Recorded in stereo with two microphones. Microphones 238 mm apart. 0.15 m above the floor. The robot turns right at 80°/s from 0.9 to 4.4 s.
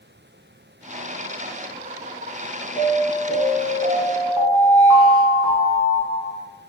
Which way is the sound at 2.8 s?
30° left (ahead or behind).